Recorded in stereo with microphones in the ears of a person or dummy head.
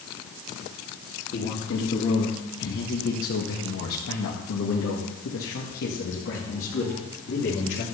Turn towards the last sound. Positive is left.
turn(degrees=55)  # may be behind; listen again after turning